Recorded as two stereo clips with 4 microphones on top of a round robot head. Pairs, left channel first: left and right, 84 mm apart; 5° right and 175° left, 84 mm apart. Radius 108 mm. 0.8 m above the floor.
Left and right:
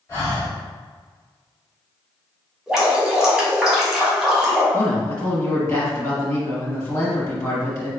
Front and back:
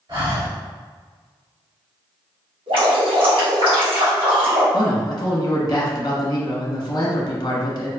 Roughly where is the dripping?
Behind.